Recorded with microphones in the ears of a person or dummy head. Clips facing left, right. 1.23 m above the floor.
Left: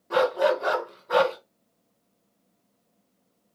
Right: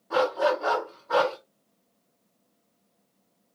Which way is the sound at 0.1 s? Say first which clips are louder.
Left 2 dB; 35° left (ahead or behind).